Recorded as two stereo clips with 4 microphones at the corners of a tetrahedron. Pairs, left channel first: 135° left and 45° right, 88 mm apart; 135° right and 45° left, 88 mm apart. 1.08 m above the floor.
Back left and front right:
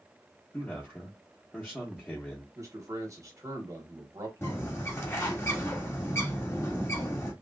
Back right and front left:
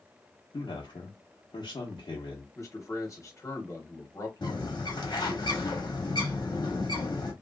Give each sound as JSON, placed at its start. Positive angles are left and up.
{"t": 0.5, "sound": "a man speaking", "azimuth_deg": -150, "distance_m": 0.9}
{"t": 2.5, "sound": "a man speaking", "azimuth_deg": -90, "distance_m": 1.2}
{"t": 4.4, "sound": "a bird", "azimuth_deg": -165, "distance_m": 1.1}